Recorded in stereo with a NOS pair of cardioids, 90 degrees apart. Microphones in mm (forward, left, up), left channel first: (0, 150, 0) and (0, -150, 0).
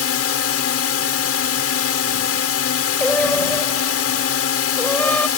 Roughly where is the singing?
Ahead.